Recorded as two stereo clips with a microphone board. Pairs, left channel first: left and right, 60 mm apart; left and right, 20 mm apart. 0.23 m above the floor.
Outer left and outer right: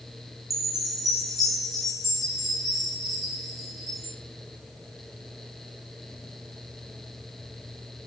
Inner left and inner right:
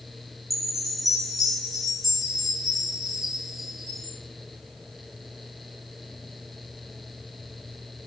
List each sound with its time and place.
0.5 s a chime: centre (ahead or behind), 7 m